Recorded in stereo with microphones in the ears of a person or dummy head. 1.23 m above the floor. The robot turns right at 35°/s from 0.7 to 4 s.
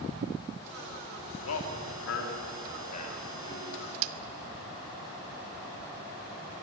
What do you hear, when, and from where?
1.4 s a man speaking: 80° left, 3.5 m; by 3.9 s 5° left (ahead or behind), 3.5 m
4.0 s a snare drum: 75° right (ahead or behind), 1.3 m